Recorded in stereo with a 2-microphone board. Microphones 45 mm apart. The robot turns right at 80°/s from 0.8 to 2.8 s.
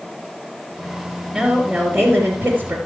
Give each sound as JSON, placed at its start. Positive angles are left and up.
{"t": 1.3, "sound": "a woman speaking", "azimuth_deg": 175, "distance_m": 2.5}